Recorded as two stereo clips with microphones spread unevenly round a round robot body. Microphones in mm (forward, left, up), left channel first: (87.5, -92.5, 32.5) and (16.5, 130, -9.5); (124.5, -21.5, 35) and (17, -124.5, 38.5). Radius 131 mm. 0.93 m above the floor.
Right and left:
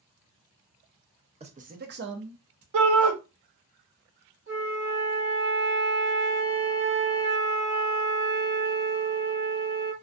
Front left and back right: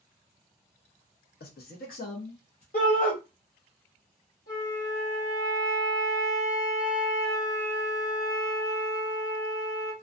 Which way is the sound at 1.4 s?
45° left.